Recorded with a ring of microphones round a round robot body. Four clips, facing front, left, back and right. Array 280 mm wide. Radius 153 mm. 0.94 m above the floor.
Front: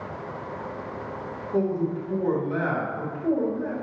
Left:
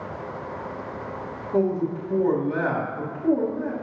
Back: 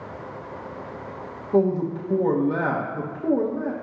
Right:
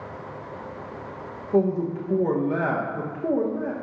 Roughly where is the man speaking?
Behind right.